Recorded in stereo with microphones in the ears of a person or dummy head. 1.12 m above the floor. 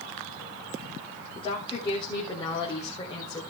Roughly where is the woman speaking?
Left.